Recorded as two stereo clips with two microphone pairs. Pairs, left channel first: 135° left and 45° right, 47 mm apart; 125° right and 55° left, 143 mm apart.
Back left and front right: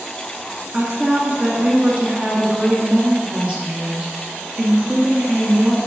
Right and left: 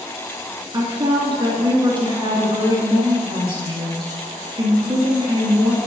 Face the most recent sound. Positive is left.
turn(degrees=10)